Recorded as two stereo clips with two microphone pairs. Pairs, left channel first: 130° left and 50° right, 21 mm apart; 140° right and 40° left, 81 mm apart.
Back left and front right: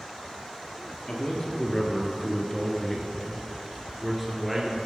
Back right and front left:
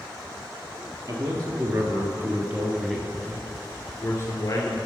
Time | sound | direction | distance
1.1 | a man speaking | 70° left | 1.7 m